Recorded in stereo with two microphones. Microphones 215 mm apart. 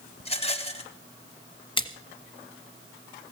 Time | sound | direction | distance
0.2 | a rattle | 30° left (ahead or behind) | 1.4 m
1.8 | a splash | 25° left (ahead or behind) | 1.3 m